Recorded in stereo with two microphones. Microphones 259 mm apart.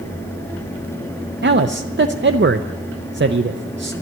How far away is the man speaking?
About 0.5 m.